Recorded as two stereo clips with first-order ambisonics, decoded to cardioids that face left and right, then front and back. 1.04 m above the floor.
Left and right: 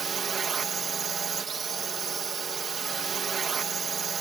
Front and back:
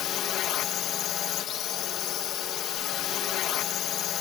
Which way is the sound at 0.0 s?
30° right.